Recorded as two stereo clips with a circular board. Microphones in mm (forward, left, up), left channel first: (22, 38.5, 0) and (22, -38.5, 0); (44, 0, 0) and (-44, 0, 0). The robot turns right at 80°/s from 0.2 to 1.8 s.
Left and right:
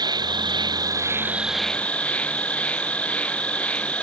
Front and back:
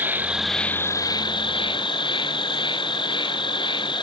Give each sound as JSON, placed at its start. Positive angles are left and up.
{"t": 0.0, "sound": "an insect", "azimuth_deg": -110}